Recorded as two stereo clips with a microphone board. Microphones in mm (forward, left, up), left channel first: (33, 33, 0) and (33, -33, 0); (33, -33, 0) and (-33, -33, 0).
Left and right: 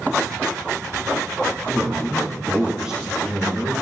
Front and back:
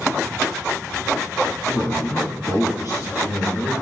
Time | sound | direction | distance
1.7 | a man speaking | 15° right | 5.5 m